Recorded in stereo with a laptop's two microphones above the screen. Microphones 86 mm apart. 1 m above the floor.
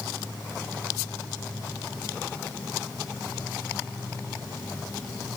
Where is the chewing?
No chewing in this recording.